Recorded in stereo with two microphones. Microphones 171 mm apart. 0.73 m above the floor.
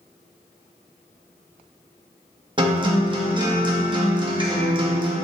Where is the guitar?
30° right (ahead or behind), 0.7 m.